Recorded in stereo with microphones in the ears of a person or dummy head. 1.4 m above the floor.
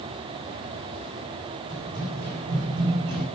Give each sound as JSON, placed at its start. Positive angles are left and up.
{"t": 1.7, "sound": "running footsteps", "side_deg": -55, "distance_m": 5.5}